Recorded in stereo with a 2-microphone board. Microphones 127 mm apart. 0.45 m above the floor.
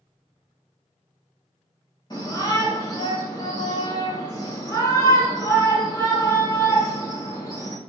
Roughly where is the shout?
Left.